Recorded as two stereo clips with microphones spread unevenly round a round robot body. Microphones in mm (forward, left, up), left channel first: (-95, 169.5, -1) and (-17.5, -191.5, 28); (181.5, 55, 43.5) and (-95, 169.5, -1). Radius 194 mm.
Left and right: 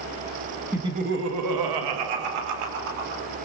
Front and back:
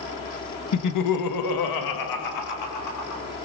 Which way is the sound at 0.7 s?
10° left.